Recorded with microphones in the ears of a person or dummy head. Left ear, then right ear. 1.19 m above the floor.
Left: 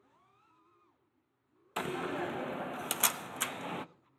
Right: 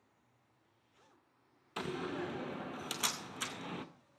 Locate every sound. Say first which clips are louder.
1.8 s a door slam: left 4 dB; 20° left (ahead or behind), 0.6 m